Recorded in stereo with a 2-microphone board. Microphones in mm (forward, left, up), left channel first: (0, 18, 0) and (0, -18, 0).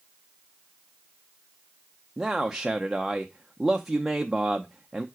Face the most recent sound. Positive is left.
turn(degrees=-10)  # may be behind; listen again after turning